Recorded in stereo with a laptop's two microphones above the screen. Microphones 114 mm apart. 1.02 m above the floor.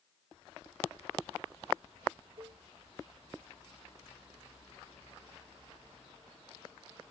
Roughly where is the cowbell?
Right.